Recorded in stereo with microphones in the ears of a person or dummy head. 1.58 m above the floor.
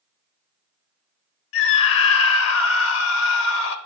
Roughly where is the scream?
Left.